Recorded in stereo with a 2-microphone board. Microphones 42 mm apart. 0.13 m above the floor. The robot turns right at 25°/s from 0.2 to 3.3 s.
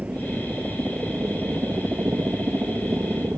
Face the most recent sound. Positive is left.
turn(degrees=-65)